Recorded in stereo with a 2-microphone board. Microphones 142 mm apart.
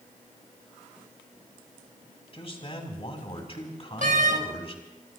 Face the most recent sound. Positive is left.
turn(degrees=-70)  # may be behind; listen again after turning